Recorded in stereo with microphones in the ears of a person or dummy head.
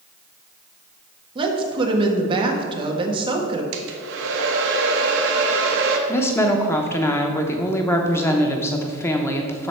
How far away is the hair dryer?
About 1.3 m.